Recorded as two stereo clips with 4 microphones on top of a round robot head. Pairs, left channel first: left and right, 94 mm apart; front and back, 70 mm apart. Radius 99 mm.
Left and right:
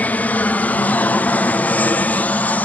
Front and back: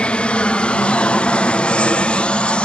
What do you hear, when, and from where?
0.0 s an aircraft: 50° left